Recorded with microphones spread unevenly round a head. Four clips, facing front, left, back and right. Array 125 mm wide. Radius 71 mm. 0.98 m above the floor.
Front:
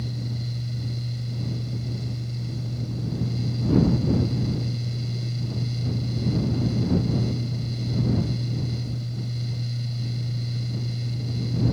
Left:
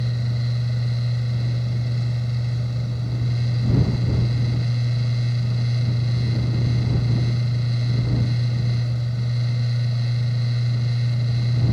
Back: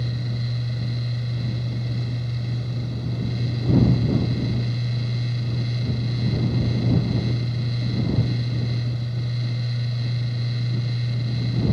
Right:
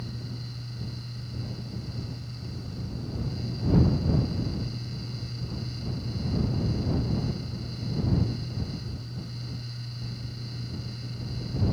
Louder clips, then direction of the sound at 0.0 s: Left 11 dB, back 3 dB; 115° left.